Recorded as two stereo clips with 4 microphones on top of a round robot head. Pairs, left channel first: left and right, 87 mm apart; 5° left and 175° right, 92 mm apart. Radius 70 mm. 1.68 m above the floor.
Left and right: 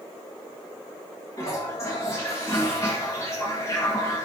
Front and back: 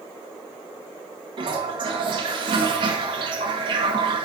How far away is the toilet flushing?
About 2.0 m.